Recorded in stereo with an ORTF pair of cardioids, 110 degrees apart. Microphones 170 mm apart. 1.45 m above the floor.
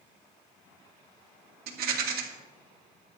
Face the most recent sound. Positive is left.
turn(degrees=-65)